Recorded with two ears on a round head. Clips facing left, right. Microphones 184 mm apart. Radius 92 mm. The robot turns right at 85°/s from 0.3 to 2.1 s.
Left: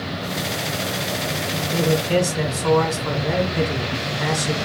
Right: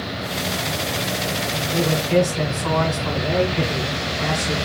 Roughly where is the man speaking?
Ahead left.